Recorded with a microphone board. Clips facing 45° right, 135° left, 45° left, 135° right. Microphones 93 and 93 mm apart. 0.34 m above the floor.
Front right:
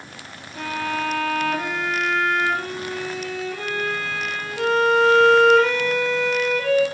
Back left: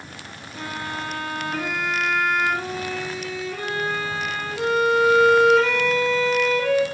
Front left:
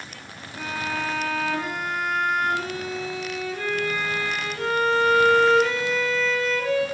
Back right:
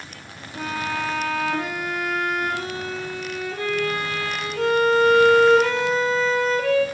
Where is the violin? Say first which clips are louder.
Front right 5 dB, back right 2 dB; 135° right, 3 m.